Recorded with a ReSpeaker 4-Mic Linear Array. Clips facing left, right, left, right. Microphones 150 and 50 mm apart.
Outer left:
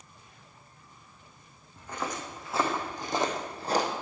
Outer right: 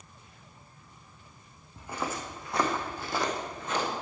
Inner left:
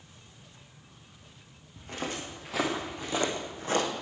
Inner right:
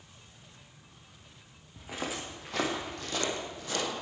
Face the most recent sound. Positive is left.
turn(degrees=40)  # may be behind; listen again after turning